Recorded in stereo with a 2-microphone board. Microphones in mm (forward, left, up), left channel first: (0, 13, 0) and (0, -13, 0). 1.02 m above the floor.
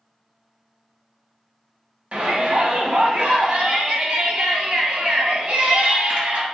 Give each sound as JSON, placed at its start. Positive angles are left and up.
{"t": 2.1, "sound": "a shout", "side_deg": -50, "distance_m": 0.9}